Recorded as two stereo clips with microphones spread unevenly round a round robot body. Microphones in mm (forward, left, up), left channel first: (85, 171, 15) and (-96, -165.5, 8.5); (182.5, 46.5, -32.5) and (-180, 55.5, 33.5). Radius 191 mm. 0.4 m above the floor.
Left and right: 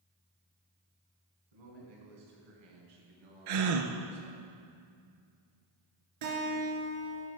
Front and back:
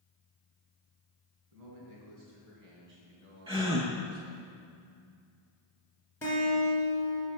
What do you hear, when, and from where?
1.5 s a man speaking: 135° right, 4 m; by 4.5 s 125° right, 3 m
3.5 s a gasp: 105° right, 1.1 m
6.2 s a guitar: 85° right, 3 m